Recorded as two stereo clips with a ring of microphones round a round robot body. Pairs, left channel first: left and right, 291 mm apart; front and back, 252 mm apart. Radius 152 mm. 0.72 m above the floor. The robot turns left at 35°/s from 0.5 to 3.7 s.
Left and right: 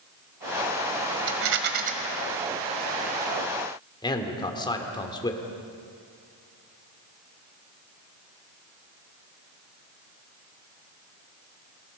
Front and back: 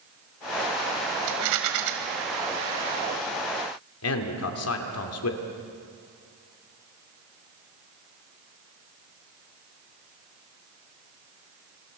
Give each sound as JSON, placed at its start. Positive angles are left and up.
{"t": 1.3, "sound": "a rattle", "azimuth_deg": -135, "distance_m": 1.8}
{"t": 4.0, "sound": "a man speaking", "azimuth_deg": 15, "distance_m": 2.5}